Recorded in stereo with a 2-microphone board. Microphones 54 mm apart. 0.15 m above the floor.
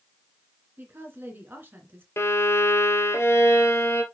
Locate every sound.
0.8 s a woman speaking: 40° right (ahead or behind), 1.8 m
2.2 s a violin: 55° left (ahead or behind), 1.5 m